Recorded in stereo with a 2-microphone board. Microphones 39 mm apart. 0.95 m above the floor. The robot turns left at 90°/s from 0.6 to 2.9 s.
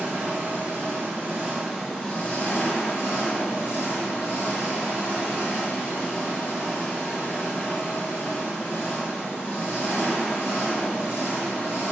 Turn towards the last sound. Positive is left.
turn(degrees=85)